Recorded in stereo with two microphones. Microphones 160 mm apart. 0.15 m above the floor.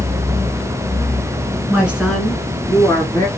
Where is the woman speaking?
10° right (ahead or behind), 1.9 m; by 3.3 s 20° left (ahead or behind), 2 m.